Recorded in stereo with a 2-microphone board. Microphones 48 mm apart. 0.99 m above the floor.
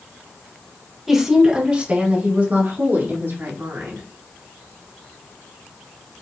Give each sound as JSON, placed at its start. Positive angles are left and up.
{"t": 1.1, "sound": "a woman speaking", "side_deg": -5, "distance_m": 1.2}